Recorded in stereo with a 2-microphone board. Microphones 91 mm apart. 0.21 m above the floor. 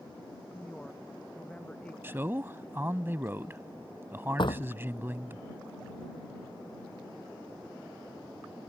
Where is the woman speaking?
15° left (ahead or behind).